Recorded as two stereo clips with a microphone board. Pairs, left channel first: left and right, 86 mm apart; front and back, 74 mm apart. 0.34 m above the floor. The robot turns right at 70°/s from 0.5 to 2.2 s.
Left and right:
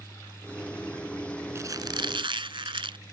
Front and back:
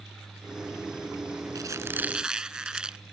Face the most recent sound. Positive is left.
turn(degrees=-100)